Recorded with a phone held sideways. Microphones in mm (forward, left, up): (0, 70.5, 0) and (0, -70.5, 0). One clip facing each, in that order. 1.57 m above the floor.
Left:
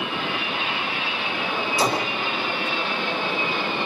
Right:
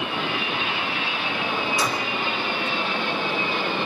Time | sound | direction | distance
1.8 | a gunshot | 30° left (ahead or behind) | ?